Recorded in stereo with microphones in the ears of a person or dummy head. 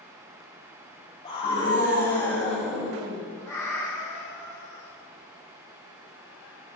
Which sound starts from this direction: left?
A scream, at 1.2 s.